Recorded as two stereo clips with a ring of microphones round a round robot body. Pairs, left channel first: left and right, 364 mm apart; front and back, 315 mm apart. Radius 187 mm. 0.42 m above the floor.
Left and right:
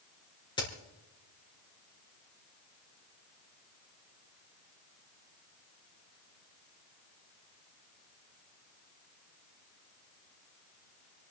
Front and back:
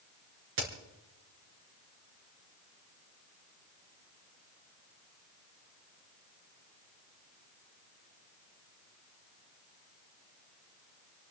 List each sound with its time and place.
0.6 s a crack: 170° left, 4 m